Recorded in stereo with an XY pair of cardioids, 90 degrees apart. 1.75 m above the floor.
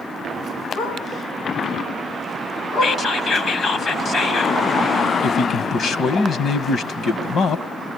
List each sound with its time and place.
0.8 s a dog barking: 70° left, 5.5 m
2.8 s whispering: 55° left, 1.5 m
5.2 s a man speaking: 65° left, 2 m